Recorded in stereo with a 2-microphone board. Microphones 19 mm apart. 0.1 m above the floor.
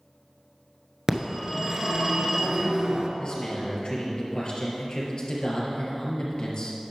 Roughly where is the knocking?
No knocking in this recording.